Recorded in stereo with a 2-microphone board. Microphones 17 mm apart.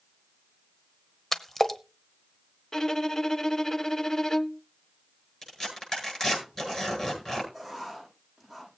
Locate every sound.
1.3 s a splash: 30° left (ahead or behind), 1.0 m
2.7 s a violin: 30° left (ahead or behind), 0.5 m
5.4 s tearing paper: 25° left (ahead or behind), 7.5 m
7.5 s writing: 5° left (ahead or behind), 9.5 m